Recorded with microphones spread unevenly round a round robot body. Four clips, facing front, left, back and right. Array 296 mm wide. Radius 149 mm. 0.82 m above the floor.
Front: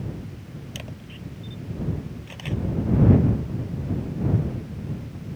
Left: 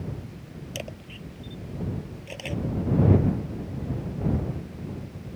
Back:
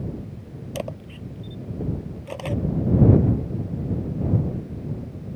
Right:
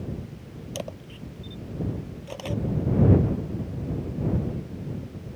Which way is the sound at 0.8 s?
165° right.